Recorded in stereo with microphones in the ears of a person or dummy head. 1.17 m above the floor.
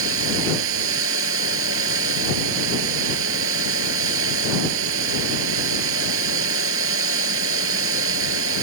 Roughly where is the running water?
Right.